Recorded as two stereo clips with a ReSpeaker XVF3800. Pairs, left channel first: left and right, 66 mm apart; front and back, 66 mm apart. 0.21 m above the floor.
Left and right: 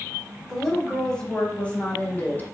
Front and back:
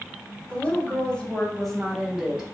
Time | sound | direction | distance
0.5 | a woman speaking | 5° left | 1.3 m